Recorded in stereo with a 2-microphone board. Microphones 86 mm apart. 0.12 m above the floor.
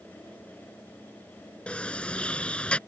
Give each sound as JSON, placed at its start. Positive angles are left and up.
{"t": 1.7, "sound": "a sliding door", "side_deg": 15}